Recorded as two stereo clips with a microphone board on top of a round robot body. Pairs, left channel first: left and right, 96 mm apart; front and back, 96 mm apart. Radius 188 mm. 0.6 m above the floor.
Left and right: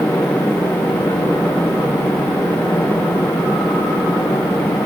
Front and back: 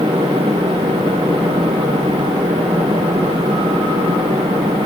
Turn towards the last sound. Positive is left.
No sound to turn to.